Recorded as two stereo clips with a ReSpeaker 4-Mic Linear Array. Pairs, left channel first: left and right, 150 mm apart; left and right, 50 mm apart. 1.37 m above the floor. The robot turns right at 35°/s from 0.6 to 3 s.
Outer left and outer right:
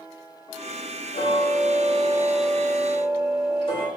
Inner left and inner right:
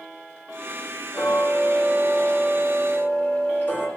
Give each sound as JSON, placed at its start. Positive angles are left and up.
{"t": 1.1, "sound": "ticking", "azimuth_deg": 75, "distance_m": 3.5}